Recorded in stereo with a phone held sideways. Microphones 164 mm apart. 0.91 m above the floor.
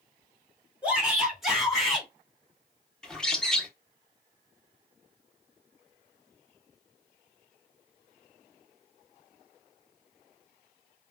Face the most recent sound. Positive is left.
turn(degrees=5)  # may be behind; listen again after turning